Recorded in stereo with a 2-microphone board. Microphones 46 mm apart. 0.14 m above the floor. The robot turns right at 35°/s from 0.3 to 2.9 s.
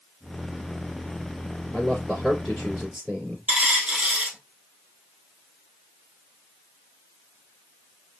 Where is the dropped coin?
25° right (ahead or behind), 1.9 m.